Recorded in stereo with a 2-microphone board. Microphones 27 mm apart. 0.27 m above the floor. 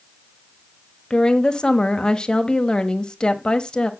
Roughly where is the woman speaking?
Left.